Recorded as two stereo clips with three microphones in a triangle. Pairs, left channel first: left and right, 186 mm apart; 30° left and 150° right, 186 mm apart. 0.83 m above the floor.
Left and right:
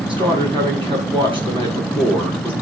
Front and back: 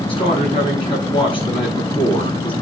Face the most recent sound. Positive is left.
turn(degrees=-30)